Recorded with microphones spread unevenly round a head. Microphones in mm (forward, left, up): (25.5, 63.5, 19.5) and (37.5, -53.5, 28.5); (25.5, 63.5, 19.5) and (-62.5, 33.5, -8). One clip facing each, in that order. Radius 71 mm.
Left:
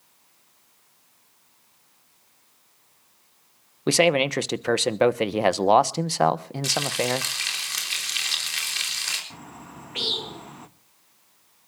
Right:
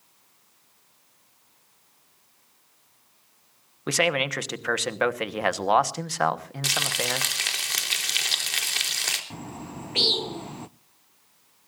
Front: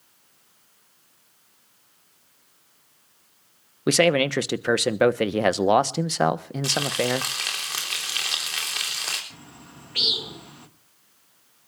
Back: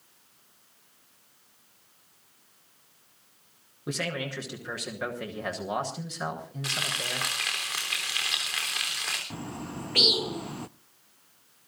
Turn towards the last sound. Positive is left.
turn(degrees=-115)